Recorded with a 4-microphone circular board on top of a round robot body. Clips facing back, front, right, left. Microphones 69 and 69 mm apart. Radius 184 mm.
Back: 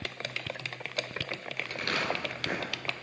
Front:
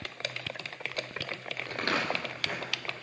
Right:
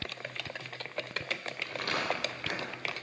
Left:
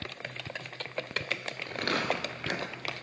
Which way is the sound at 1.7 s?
45° left.